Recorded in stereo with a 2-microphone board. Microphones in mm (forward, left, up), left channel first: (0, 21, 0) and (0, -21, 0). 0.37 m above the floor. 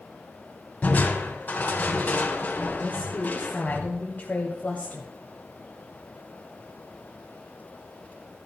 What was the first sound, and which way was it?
Crushing, 40° left (ahead or behind).